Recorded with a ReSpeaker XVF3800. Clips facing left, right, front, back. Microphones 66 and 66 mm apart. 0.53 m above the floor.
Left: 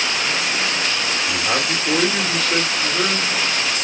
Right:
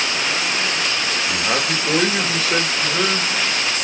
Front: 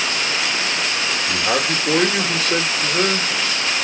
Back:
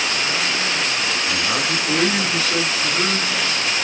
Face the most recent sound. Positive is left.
turn(degrees=-15)